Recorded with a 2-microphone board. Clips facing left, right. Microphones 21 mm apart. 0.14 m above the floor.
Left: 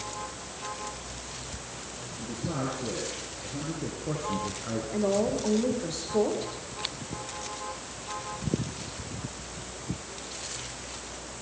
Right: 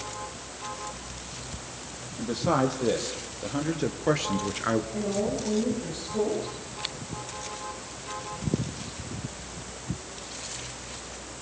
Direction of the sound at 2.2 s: 70° right (ahead or behind).